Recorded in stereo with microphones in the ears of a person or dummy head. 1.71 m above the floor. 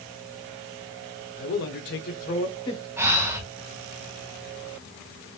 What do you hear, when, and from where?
1.4 s a man speaking: 50° left (ahead or behind), 0.7 m; by 2.9 s 20° left (ahead or behind), 0.7 m
3.0 s breathing: 15° right (ahead or behind), 0.6 m